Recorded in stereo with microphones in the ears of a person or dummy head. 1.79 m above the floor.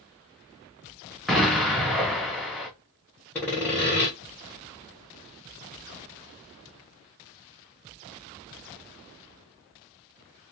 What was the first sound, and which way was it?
An explosion, centre (ahead or behind).